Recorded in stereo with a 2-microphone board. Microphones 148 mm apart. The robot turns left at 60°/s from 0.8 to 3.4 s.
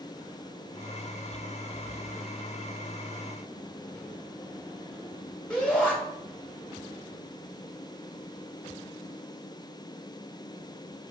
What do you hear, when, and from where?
5.5 s a shout: 5° left (ahead or behind), 1.9 m